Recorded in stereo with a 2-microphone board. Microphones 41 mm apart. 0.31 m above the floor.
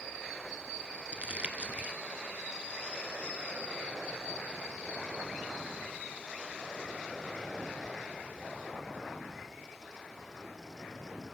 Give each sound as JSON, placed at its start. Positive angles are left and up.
{"t": 1.1, "sound": "crumpling", "side_deg": -30, "distance_m": 1.3}